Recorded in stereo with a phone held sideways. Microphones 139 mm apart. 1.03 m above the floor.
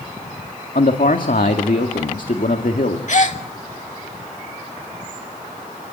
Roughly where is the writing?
No writing in this recording.